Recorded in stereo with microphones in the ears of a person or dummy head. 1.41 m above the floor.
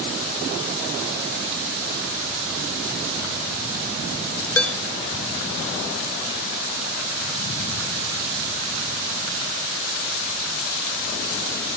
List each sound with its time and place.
4.6 s dishes clattering: 10° left (ahead or behind), 0.5 m